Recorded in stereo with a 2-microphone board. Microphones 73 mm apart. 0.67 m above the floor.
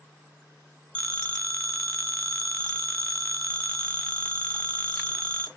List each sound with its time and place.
0.9 s a phone ringing: 15° left (ahead or behind), 0.5 m